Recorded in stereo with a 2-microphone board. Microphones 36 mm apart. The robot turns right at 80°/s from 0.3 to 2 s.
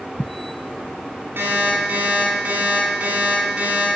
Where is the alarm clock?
90° right, 5 m; by 3.9 s 35° right, 5 m.